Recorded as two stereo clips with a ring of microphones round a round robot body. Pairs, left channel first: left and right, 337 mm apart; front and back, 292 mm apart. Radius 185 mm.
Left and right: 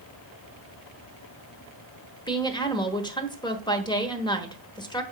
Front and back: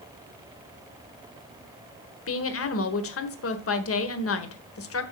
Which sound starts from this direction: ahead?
A woman speaking, at 2.3 s.